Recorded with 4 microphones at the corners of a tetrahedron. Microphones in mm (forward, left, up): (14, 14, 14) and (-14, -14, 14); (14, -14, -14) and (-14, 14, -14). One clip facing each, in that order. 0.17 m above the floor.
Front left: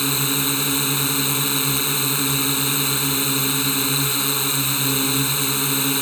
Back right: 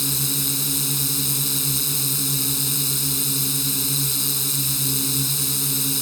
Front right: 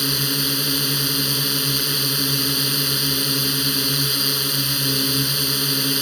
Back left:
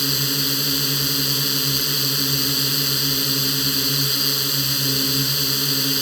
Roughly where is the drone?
Ahead left.